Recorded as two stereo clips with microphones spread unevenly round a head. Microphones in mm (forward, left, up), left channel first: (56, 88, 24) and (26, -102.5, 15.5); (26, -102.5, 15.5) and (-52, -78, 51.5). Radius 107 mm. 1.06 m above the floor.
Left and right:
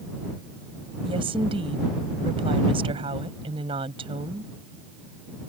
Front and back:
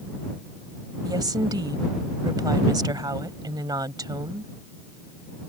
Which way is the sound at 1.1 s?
165° right.